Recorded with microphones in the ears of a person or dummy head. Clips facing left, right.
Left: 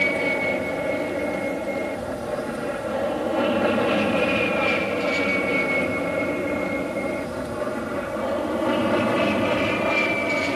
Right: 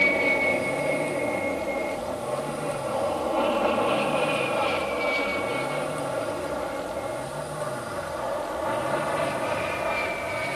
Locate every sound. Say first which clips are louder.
0.0 s an aircraft: left 1 dB; 5° left (ahead or behind); by 10.6 s 50° left (ahead or behind)